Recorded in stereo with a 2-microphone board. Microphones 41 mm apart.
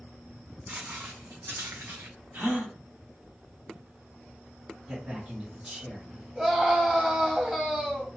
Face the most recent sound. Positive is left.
turn(degrees=-10)  # may be behind; listen again after turning